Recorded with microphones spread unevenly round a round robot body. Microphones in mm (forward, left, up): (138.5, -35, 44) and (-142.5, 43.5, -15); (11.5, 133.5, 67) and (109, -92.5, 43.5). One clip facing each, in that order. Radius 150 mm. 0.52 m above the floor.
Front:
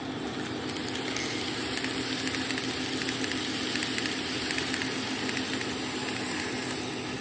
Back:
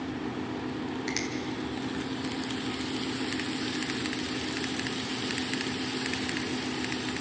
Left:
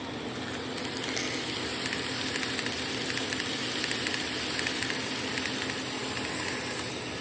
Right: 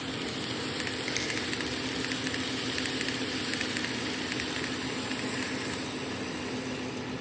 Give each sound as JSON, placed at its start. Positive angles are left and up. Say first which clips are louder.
{"t": 1.1, "sound": "a finger snap", "louder": "back 2 dB, left 1 dB", "azimuth_deg": -130, "distance_m": 3.0}